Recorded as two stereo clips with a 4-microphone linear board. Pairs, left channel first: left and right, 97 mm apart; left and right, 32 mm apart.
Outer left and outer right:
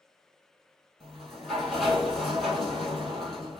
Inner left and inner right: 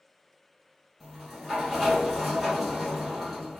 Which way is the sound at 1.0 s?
Centre (ahead or behind).